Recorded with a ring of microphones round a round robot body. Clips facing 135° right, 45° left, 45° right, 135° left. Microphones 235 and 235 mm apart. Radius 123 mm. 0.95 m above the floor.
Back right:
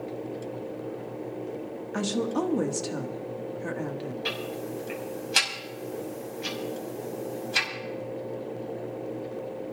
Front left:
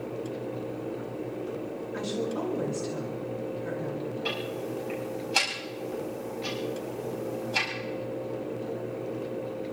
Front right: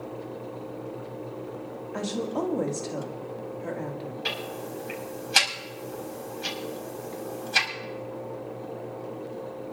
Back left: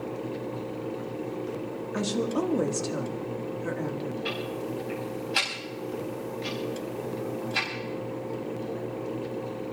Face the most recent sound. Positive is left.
turn(degrees=-70)